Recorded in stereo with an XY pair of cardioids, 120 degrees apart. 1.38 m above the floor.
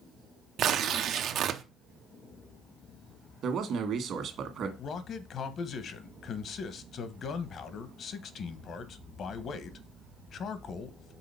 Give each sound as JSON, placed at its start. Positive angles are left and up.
{"t": 0.6, "sound": "tearing paper", "azimuth_deg": -60, "distance_m": 0.7}
{"t": 3.4, "sound": "a man speaking", "azimuth_deg": -55, "distance_m": 1.7}
{"t": 4.8, "sound": "a man speaking", "azimuth_deg": 50, "distance_m": 1.0}